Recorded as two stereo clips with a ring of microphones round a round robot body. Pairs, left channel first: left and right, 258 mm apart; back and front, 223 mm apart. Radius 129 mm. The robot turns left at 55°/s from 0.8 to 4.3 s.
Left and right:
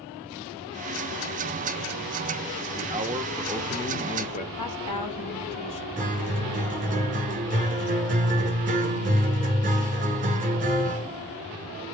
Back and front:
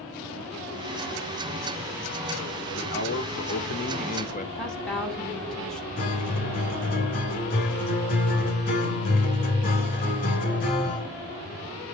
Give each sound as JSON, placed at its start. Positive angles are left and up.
{"t": 2.8, "sound": "a man speaking", "azimuth_deg": -135, "distance_m": 1.3}
{"t": 4.5, "sound": "a woman speaking", "azimuth_deg": 95, "distance_m": 3.5}
{"t": 6.0, "sound": "a guitar", "azimuth_deg": -140, "distance_m": 1.7}